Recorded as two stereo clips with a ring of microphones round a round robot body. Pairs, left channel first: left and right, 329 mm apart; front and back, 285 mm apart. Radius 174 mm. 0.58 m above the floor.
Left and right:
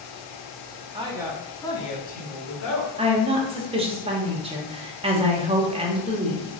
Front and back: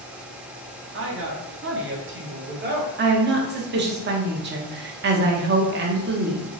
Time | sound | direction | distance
0.9 | a woman speaking | 155° right | 0.9 m
3.0 | a woman speaking | 155° right | 0.8 m